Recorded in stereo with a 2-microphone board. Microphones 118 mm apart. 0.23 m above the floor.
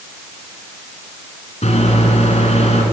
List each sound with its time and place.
1.6 s a microwave: 60° left (ahead or behind), 2 m